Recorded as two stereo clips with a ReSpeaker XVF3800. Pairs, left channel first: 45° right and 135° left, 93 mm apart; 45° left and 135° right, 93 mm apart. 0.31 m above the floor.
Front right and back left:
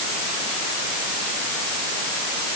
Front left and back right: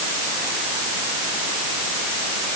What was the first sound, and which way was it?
Only background noise.